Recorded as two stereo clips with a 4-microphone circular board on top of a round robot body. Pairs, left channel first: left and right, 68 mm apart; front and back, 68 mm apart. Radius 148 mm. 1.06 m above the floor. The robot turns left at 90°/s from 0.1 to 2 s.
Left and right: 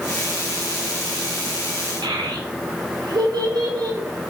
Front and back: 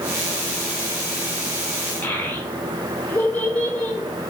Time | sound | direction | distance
2.0 | a child speaking | 65° right | 0.6 m